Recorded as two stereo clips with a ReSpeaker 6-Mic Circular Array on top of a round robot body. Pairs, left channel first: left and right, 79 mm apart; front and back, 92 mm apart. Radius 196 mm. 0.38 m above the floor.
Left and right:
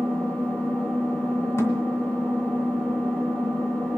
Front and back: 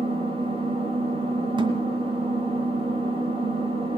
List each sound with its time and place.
0.0 s an engine running: 165° left, 5 m
1.6 s a thud: 145° left, 1.9 m